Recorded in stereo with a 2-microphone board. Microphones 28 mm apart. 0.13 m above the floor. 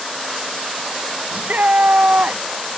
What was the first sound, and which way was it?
A shout, 65° right (ahead or behind).